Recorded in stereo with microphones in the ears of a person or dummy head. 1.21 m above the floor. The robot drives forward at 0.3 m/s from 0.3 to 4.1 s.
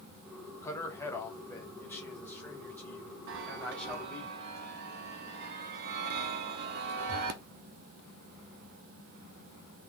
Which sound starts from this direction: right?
A chime, at 3.3 s.